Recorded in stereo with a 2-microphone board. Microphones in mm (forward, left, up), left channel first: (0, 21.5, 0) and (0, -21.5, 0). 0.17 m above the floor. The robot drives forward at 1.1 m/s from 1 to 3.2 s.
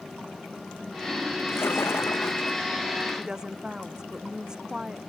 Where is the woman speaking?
15° right (ahead or behind).